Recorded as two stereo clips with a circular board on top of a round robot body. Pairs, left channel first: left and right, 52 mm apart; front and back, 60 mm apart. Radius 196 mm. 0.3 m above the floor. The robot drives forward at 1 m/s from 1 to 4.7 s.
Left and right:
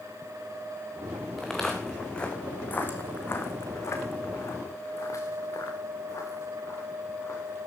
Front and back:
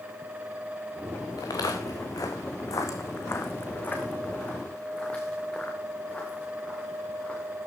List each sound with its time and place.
1.4 s footsteps: 5° left, 2.5 m; by 7.7 s 65° left, 5.5 m